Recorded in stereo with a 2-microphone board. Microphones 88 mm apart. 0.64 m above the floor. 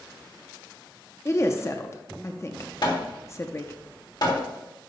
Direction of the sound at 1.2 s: 35° left (ahead or behind).